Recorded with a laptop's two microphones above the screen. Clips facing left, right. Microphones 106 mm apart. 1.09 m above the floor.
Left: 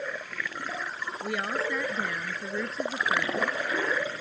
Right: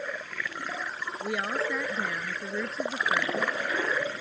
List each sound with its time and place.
1.2 s a woman speaking: 5° right (ahead or behind); by 3.4 s 5° left (ahead or behind)